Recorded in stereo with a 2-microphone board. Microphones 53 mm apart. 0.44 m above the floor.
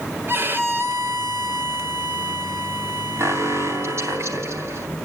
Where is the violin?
45° right (ahead or behind), 1.7 m.